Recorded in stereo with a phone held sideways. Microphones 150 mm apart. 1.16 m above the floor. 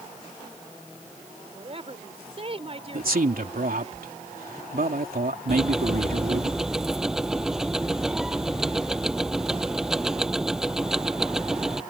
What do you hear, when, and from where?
1.5 s a woman speaking: 40° right (ahead or behind)
2.9 s a man speaking: 75° right (ahead or behind)
5.5 s ticking: 5° right (ahead or behind)